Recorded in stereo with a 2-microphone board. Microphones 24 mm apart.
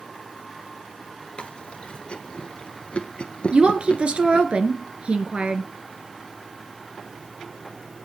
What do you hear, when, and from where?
1.4 s chewing: 60° left (ahead or behind), 1.3 m
3.5 s a woman speaking: 60° right (ahead or behind), 1.8 m